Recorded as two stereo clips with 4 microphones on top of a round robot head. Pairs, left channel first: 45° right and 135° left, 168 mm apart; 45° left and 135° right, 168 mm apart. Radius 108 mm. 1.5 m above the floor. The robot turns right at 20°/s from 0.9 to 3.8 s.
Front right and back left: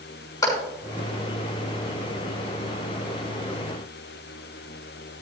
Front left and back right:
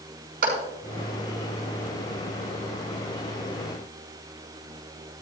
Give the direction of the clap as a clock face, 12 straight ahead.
4 o'clock.